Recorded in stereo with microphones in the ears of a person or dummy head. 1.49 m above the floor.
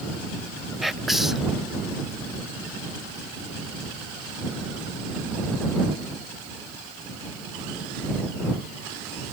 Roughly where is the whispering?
Centre.